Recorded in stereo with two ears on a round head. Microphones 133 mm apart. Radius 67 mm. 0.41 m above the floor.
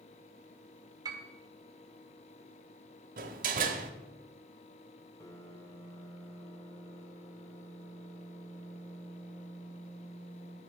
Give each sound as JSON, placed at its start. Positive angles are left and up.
{"t": 1.1, "sound": "a piano", "side_deg": -25, "distance_m": 1.4}
{"t": 3.2, "sound": "a door slam", "side_deg": -60, "distance_m": 1.0}
{"t": 5.2, "sound": "a piano", "side_deg": 20, "distance_m": 0.8}